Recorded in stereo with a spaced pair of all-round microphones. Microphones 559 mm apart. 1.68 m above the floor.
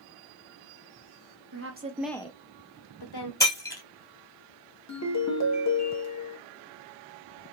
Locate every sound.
1.5 s a woman speaking: 30° right (ahead or behind), 0.5 m; by 3.3 s 45° left (ahead or behind), 0.8 m
3.4 s breaking glass: 5° left (ahead or behind), 1.9 m
4.9 s a ringtone: 30° left (ahead or behind), 0.7 m